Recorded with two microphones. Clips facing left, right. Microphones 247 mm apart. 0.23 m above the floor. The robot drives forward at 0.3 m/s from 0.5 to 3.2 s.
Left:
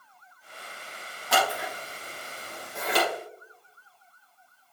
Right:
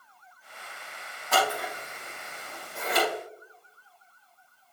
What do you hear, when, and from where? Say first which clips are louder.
1.3 s scissors: even; 80° left, 4.5 m